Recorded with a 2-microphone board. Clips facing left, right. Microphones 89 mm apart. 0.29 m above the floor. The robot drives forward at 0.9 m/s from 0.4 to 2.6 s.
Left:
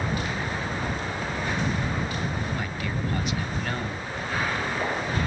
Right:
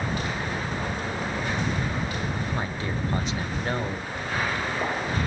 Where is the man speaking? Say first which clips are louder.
Right 1 dB; 30° right (ahead or behind), 1.1 m.